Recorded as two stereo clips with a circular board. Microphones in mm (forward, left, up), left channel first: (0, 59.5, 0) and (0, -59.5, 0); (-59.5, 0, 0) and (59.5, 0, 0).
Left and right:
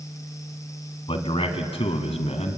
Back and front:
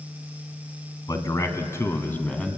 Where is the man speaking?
125° left, 2 m; by 2.6 s 100° left, 2.0 m.